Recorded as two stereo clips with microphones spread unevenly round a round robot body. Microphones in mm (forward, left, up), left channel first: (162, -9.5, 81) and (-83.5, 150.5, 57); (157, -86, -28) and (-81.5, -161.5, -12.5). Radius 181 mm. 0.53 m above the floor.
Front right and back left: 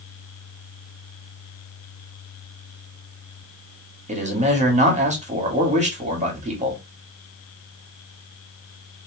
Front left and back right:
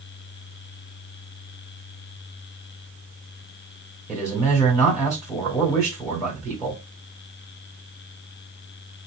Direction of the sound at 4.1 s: 95° left.